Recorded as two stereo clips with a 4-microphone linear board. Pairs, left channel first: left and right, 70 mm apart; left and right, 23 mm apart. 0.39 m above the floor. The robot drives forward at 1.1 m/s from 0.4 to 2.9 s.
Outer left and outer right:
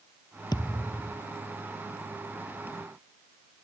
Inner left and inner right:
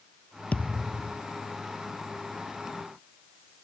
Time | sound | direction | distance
0.5 | a thud | 80° left | ?